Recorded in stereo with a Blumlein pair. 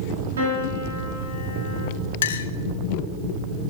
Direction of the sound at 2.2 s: 60° left.